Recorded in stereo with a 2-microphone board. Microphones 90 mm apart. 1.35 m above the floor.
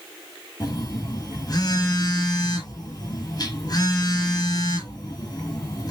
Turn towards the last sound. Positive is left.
turn(degrees=45)  # may be behind; listen again after turning